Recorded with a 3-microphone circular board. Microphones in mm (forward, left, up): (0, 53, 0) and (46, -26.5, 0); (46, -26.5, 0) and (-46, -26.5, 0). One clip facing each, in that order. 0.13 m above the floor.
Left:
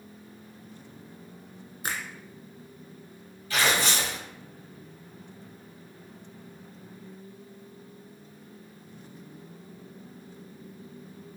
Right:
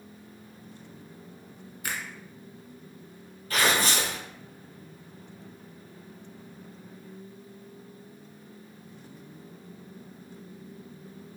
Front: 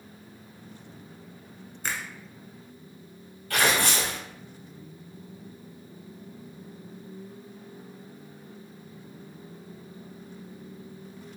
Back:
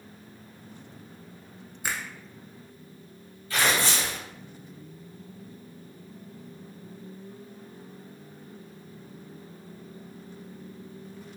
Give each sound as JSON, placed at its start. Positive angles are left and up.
{"t": 1.8, "sound": "a finger snap", "azimuth_deg": 105, "distance_m": 1.1}
{"t": 3.5, "sound": "tearing paper", "azimuth_deg": -20, "distance_m": 1.5}